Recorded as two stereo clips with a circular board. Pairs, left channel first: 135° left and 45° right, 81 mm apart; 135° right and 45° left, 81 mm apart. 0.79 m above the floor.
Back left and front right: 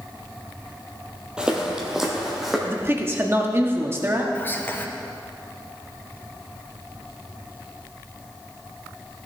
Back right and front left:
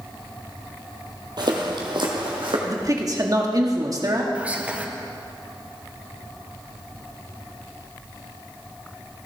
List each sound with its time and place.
1.4 s footsteps: 30° left, 1.5 m; by 2.6 s 40° left, 2.5 m
2.7 s a man speaking: 10° left, 1.3 m
4.3 s whispering: 100° left, 0.8 m